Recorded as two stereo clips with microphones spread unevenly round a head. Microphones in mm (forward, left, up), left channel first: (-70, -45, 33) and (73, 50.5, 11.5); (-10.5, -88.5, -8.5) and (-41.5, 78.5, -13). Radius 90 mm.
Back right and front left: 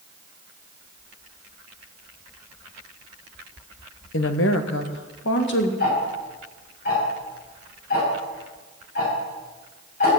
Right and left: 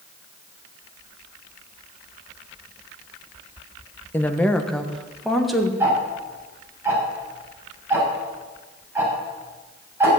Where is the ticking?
175° left, 7 m.